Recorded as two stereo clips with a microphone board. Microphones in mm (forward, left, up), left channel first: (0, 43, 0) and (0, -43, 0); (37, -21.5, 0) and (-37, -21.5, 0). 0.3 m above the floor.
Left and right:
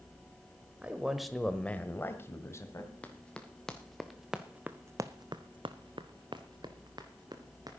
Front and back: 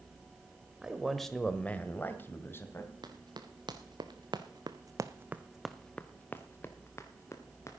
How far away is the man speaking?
About 1.2 m.